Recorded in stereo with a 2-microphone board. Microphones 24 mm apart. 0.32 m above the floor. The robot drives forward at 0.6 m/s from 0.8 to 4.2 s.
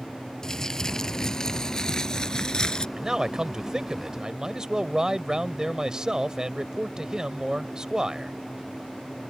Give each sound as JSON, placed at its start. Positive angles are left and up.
{"t": 0.4, "sound": "crumpling", "side_deg": 20}
{"t": 3.0, "sound": "a man speaking", "side_deg": -30}